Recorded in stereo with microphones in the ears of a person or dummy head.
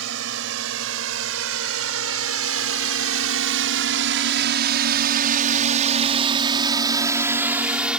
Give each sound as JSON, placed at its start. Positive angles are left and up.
{"t": 0.0, "sound": "a drone", "side_deg": -70}